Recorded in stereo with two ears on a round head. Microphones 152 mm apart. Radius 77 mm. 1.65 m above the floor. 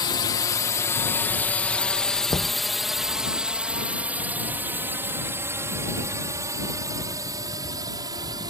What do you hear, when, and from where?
0.0 s a drone: 25° left (ahead or behind); by 8.5 s 25° right (ahead or behind)
2.3 s knocking: 25° left (ahead or behind)